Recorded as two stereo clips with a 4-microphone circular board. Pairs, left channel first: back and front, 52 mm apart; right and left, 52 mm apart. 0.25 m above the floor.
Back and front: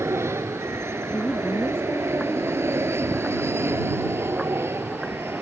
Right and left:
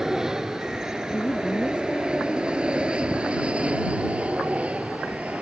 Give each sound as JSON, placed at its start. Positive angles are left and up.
{"t": 0.0, "sound": "an aircraft", "azimuth_deg": 15}
{"t": 1.1, "sound": "a woman speaking", "azimuth_deg": -145}